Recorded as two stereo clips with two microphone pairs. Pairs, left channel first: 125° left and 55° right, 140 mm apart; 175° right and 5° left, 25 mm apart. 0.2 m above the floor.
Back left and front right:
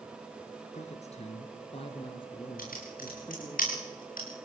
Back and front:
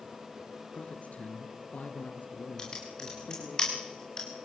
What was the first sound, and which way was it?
A man speaking, 150° left.